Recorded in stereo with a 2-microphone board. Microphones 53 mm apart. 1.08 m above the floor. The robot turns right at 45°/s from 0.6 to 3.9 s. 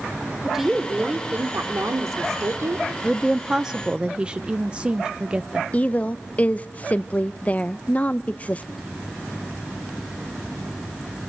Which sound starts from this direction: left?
A woman speaking, at 5.7 s.